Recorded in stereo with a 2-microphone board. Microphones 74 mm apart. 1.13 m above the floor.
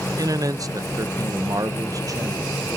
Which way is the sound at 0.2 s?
45° right (ahead or behind).